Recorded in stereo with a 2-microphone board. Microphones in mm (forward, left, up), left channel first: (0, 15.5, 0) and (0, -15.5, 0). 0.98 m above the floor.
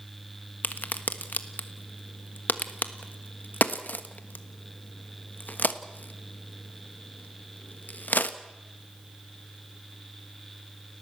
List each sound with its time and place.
0.6 s a crack: 60° left (ahead or behind), 1.3 m